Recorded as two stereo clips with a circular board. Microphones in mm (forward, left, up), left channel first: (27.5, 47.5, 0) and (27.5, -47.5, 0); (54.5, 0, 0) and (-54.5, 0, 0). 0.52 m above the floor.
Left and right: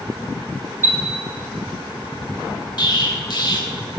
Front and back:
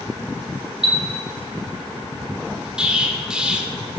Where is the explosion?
100° left, 1.3 m.